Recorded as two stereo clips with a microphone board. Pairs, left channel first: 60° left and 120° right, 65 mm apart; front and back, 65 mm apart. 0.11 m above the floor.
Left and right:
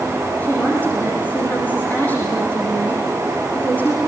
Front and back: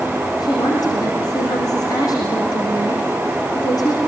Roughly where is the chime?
I don't hear a chime.